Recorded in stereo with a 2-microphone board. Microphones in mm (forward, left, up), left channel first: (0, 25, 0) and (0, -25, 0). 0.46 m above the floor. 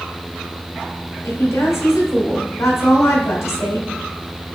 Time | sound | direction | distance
1.2 | a woman speaking | 70° left (ahead or behind) | 2.5 m